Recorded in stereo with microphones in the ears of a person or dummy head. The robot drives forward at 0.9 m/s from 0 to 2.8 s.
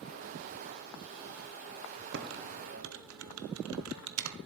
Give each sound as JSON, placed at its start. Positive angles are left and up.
{"t": 2.1, "sound": "typing on a keyboard", "side_deg": -55, "distance_m": 1.1}